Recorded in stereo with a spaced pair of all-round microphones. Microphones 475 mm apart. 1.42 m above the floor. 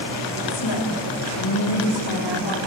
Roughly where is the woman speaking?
Left.